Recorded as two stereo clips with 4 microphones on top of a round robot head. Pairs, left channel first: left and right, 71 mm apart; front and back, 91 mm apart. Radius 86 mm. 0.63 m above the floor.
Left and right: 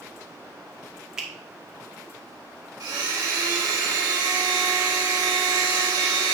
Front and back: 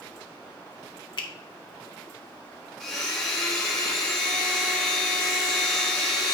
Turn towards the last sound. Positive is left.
turn(degrees=-90)